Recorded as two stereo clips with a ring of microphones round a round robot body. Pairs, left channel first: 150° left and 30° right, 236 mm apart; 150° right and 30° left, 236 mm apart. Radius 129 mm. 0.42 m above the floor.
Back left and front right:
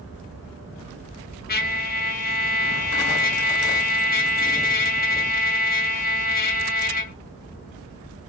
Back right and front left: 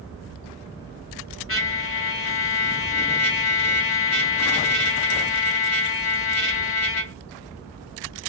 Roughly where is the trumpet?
Behind.